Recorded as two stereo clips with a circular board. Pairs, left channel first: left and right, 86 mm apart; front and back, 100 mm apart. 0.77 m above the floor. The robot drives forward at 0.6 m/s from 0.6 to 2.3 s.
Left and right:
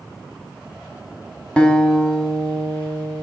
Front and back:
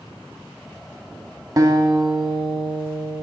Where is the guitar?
160° left, 0.7 m; by 3.2 s 170° left, 1.1 m.